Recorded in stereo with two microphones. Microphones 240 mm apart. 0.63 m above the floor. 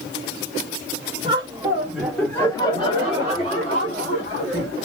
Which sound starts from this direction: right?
Laughter, at 1.2 s.